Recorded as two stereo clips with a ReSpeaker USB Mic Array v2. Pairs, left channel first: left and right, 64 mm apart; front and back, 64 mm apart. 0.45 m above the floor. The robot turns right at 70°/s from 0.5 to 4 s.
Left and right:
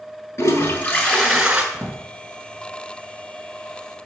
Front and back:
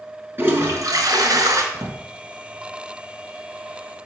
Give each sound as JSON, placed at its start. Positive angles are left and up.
{"t": 0.4, "sound": "a toilet flushing", "azimuth_deg": 120, "distance_m": 1.4}
{"t": 1.7, "sound": "a drawer", "azimuth_deg": 160, "distance_m": 1.5}